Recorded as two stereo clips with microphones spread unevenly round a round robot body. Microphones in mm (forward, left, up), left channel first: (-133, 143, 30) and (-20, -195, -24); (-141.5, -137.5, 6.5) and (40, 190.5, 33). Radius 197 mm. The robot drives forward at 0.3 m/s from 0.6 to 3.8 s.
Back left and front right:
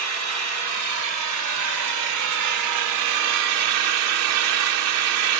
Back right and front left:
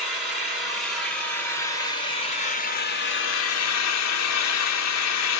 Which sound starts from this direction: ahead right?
An engine running, at 0.0 s.